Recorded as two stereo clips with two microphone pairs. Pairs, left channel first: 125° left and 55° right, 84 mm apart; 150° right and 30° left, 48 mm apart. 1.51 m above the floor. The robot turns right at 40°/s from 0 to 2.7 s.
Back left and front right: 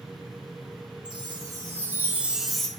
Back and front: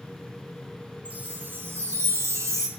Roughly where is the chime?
Ahead right.